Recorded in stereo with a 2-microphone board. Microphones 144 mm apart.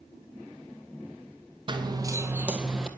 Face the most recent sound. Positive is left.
turn(degrees=0)  # may be behind; listen again after turning